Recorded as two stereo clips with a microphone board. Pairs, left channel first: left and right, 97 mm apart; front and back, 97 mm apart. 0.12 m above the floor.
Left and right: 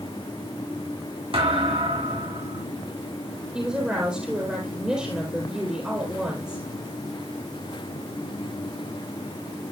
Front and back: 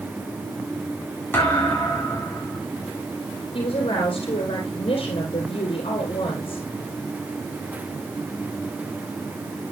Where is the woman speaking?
10° right, 4 m.